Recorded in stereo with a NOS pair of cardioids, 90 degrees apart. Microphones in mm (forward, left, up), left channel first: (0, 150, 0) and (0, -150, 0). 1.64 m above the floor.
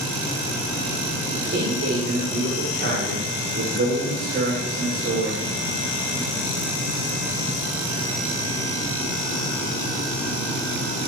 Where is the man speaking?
40° right, 7 m.